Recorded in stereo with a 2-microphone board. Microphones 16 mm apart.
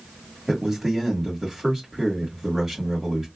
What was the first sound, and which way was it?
A man speaking, 20° right (ahead or behind).